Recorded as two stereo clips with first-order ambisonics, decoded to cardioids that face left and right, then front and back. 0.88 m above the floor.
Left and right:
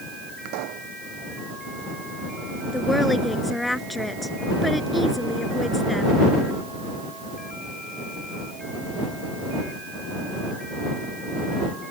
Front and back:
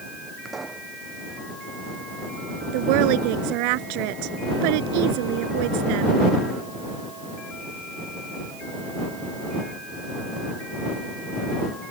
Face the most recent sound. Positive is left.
turn(degrees=175)